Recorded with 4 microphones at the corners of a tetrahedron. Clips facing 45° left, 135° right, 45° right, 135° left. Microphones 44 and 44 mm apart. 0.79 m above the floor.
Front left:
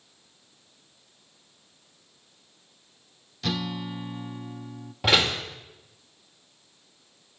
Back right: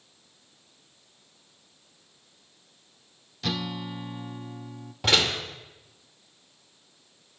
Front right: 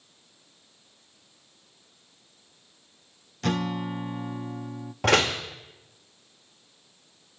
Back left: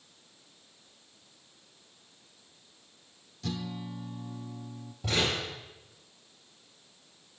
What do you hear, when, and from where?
3.4 s a guitar: 50° right, 0.5 m
5.0 s a door slam: 35° right, 2 m